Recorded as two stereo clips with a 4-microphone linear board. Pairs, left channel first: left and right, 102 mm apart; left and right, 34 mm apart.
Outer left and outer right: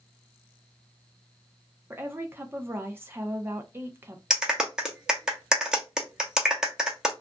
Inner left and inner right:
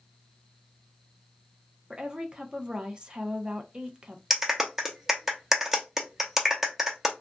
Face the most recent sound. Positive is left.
turn(degrees=-5)  # may be behind; listen again after turning